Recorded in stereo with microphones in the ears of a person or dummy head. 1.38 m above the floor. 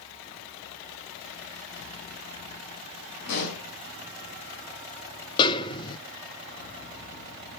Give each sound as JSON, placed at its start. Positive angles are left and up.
{"t": 3.3, "sound": "a pop", "side_deg": 60, "distance_m": 5.0}
{"t": 5.4, "sound": "a snare drum", "side_deg": 25, "distance_m": 0.5}